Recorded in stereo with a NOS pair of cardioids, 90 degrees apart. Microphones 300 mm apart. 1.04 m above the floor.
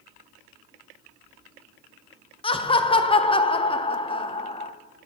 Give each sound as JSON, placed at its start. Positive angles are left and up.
{"t": 2.4, "sound": "laughter", "azimuth_deg": 20, "distance_m": 0.7}